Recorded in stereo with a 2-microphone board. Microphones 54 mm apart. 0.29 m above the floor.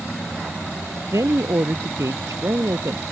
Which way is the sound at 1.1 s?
80° right.